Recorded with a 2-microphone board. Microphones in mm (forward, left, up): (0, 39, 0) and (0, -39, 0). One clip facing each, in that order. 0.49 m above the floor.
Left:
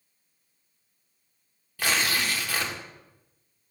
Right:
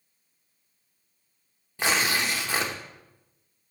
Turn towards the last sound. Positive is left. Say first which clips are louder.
# right 1 dB
turn(degrees=-25)  # may be behind; listen again after turning